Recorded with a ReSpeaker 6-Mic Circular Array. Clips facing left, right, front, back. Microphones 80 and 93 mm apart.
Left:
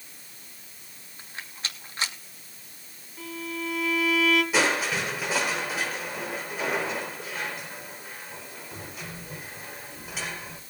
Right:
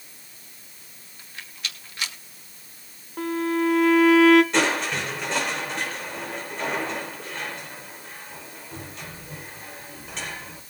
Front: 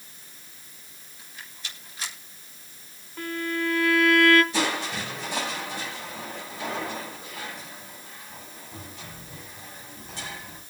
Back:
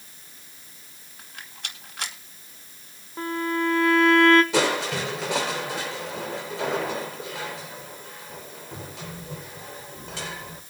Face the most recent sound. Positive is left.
turn(degrees=175)